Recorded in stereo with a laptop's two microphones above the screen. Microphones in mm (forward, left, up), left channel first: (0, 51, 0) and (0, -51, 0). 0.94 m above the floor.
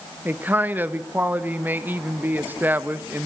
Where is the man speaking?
20° right (ahead or behind), 0.8 m.